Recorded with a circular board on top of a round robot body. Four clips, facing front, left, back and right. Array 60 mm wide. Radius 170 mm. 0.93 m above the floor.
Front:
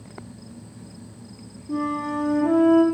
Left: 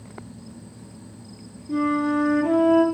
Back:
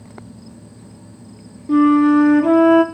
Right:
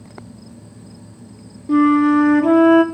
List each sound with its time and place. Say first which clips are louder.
1.7 s a flute: right 9 dB, back 14 dB; 130° right, 0.9 m